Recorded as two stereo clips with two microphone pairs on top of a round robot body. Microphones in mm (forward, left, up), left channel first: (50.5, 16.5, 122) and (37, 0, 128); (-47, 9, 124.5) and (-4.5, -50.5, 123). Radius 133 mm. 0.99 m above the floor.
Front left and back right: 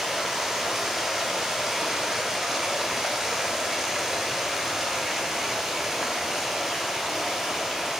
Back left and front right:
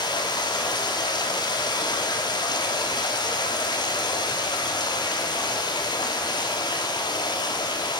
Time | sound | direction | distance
0.0 | running water | 155° left | 1.2 m